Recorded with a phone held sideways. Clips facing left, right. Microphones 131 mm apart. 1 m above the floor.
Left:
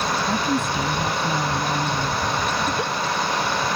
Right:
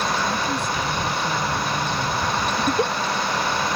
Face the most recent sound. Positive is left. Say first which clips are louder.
# right 3 dB
turn(degrees=-30)  # may be behind; listen again after turning